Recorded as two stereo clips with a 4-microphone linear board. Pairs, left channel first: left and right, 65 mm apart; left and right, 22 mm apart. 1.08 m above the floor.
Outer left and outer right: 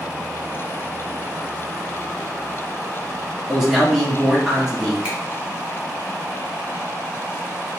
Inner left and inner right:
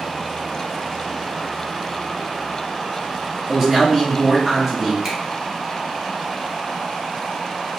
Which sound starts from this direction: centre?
A man speaking, at 3.5 s.